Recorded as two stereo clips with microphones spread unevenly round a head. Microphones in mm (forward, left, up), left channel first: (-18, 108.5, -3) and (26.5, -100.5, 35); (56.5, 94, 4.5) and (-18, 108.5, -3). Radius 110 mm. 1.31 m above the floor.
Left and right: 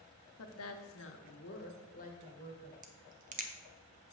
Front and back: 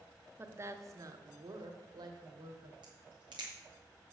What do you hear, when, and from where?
0.4 s a woman speaking: 110° left, 1.2 m; by 2.7 s 165° left, 1.7 m
2.8 s a crack: 130° right, 0.9 m